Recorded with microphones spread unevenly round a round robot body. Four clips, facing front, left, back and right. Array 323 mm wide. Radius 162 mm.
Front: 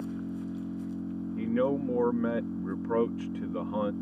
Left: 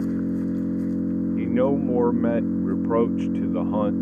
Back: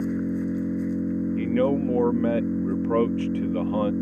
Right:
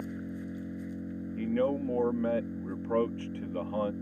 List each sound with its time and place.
0.0 s an engine running: 120° left
1.4 s a man speaking: 115° left